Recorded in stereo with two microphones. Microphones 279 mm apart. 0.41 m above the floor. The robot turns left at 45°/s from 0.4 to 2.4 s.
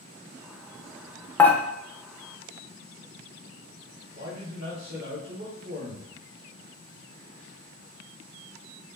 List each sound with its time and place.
1.4 s dishes clattering: 10° left (ahead or behind), 0.6 m; by 1.6 s 5° left (ahead or behind), 0.6 m
4.2 s a man speaking: 50° right (ahead or behind), 1.5 m